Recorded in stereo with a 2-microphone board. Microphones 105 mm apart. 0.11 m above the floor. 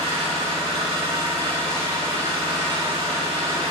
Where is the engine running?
60° right (ahead or behind), 4 m.